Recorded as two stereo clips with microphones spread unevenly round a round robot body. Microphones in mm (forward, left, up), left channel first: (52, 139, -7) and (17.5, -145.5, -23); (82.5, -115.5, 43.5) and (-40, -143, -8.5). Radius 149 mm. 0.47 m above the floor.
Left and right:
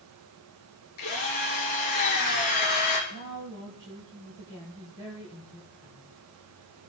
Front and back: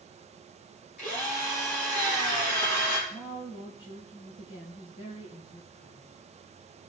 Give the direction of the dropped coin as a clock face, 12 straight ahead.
No dropped coin in this recording.